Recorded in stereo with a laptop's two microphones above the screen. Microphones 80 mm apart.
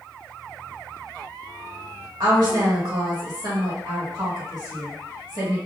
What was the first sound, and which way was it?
A woman speaking, 60° right (ahead or behind).